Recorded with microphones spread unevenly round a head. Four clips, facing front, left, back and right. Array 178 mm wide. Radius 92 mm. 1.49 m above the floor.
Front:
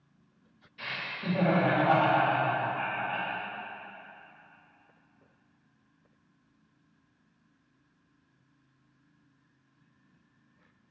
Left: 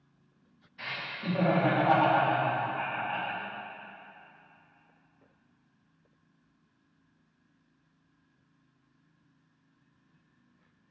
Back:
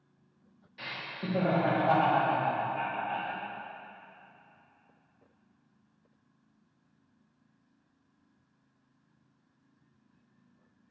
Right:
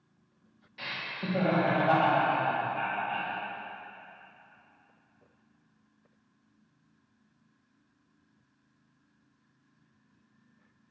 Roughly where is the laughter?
Behind right.